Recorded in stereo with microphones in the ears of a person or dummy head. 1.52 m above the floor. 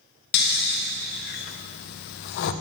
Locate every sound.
0.3 s snoring: 60° left (ahead or behind), 0.7 m